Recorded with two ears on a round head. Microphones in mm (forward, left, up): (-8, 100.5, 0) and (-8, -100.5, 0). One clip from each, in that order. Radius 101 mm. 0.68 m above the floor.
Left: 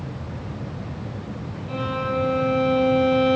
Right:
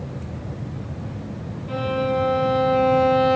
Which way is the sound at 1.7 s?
5° left (ahead or behind).